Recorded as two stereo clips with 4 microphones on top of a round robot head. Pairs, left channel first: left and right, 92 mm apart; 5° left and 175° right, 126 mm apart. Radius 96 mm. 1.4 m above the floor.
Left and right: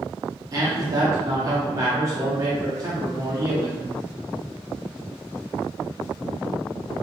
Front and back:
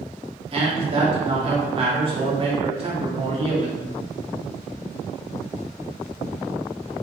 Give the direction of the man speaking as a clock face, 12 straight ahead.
5 o'clock.